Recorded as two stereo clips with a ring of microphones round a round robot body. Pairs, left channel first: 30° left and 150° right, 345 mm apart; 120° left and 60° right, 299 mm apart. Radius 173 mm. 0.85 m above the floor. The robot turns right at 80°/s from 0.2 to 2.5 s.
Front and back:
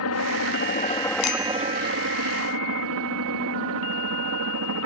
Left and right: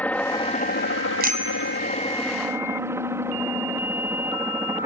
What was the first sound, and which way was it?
A helicopter, 35° left.